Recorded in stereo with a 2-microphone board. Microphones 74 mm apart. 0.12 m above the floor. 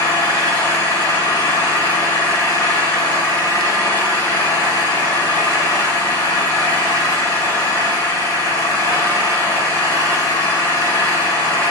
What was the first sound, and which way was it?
An engine running, 60° left (ahead or behind).